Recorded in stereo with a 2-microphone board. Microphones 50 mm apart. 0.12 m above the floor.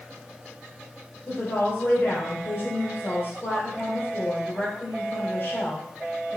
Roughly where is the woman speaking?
Left.